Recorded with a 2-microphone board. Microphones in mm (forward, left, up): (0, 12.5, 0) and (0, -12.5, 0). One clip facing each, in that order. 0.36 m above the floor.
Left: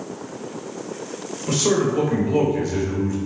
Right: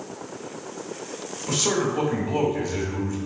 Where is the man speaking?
20° left (ahead or behind), 0.9 m.